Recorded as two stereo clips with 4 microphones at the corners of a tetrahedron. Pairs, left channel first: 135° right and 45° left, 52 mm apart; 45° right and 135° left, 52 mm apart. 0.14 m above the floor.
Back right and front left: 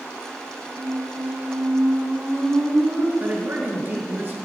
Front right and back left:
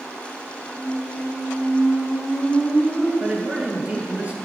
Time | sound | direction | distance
0.8 | a squeak | 75° left | 3.5 m
3.2 | a man speaking | 80° left | 2.5 m